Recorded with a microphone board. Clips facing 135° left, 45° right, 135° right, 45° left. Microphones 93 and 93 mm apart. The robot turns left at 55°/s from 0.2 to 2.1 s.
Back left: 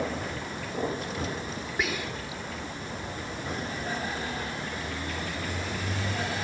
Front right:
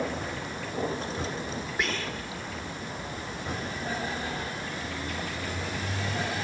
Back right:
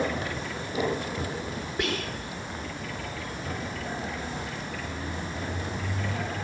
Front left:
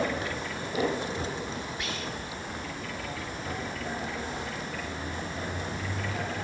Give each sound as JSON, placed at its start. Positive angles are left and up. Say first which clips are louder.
{"t": 1.8, "sound": "whispering", "louder": "back left 2 dB, back right 5 dB", "azimuth_deg": -140}